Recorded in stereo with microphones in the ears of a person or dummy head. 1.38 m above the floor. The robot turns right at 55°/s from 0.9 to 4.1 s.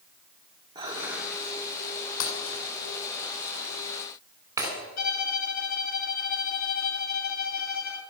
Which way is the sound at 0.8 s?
20° right (ahead or behind).